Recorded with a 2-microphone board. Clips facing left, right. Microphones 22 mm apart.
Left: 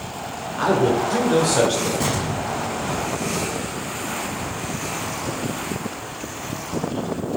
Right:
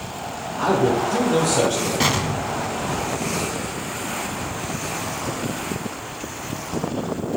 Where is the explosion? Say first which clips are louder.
Right 2 dB; 45° right (ahead or behind), 0.6 m.